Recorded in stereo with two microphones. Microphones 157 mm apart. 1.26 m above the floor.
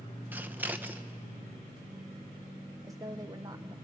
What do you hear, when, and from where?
0.3 s scissors: 10° right (ahead or behind), 0.8 m
2.8 s a woman speaking: 25° right (ahead or behind), 0.7 m